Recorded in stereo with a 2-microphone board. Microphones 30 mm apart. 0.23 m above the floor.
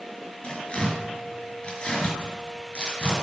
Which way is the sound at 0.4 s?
35° left (ahead or behind).